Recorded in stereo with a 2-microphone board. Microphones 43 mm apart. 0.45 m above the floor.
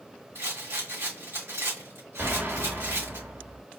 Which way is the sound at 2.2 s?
55° right (ahead or behind).